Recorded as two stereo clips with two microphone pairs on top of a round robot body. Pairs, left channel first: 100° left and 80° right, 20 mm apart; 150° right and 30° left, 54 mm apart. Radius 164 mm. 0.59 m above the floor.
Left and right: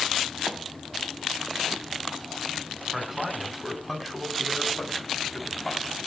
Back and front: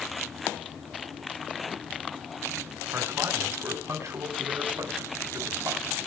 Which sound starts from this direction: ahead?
A man speaking, at 2.9 s.